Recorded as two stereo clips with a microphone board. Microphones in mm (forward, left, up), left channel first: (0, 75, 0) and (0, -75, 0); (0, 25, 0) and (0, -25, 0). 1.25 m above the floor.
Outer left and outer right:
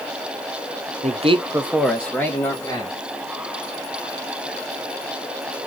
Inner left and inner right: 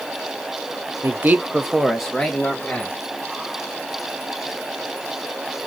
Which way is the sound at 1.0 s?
55° right (ahead or behind).